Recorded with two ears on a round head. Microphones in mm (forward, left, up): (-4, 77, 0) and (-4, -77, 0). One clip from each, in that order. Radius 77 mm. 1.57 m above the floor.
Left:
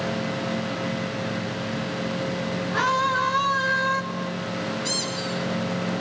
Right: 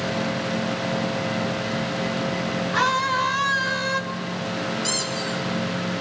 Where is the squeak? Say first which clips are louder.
Even; 65° right (ahead or behind), 7 m.